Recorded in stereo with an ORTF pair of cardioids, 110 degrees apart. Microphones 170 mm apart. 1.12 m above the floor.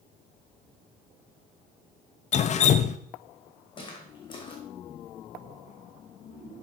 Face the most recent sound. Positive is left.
turn(degrees=30)